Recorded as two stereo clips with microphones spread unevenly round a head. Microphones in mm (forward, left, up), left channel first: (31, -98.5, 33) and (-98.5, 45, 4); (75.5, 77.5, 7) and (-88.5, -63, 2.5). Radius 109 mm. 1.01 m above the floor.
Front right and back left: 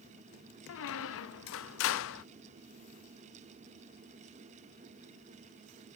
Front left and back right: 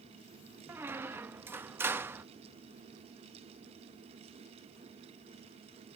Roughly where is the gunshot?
I don't hear a gunshot.